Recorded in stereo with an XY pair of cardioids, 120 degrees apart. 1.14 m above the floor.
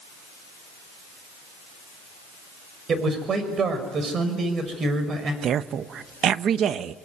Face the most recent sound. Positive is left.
turn(degrees=-55)